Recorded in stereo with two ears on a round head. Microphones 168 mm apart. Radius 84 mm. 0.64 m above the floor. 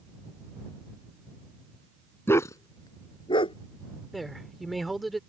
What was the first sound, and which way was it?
A dog barking, 15° left (ahead or behind).